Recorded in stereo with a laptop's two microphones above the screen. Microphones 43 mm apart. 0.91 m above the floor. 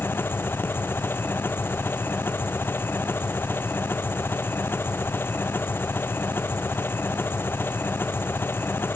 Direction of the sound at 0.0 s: 65° left (ahead or behind).